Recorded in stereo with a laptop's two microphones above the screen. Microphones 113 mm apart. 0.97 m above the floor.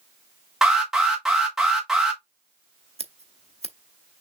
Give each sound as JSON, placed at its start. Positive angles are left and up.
{"t": 0.6, "sound": "an alarm", "side_deg": -5, "distance_m": 1.3}
{"t": 3.0, "sound": "scissors", "side_deg": -65, "distance_m": 0.7}